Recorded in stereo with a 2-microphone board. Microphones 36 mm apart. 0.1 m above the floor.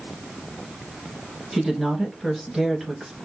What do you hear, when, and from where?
1.5 s a woman speaking: 5° right (ahead or behind), 1.5 m